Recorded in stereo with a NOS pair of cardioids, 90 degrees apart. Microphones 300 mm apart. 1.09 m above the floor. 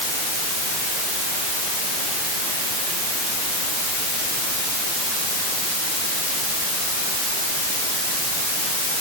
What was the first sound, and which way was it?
Only background noise.